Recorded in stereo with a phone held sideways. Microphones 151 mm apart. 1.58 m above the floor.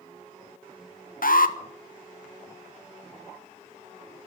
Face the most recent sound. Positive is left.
turn(degrees=75)  # may be behind; listen again after turning